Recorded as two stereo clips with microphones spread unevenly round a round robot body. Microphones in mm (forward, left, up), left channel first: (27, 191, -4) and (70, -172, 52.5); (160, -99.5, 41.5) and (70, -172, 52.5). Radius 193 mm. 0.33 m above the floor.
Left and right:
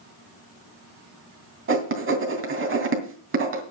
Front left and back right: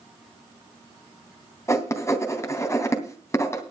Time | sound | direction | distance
1.7 | writing | 25° right | 3 m